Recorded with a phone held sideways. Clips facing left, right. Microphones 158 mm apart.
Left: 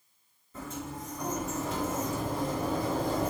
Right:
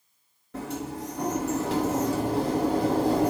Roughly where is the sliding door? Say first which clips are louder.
Right 6 dB; right.